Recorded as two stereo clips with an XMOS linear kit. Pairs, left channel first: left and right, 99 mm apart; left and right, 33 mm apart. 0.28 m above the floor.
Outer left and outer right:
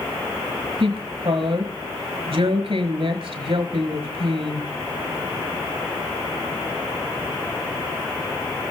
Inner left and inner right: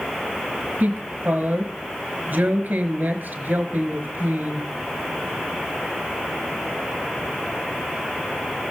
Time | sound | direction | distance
0.8 | a woman speaking | 55° right (ahead or behind) | 4 m